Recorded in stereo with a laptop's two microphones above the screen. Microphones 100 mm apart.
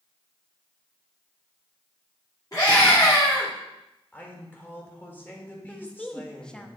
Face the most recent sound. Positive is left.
turn(degrees=10)  # may be behind; listen again after turning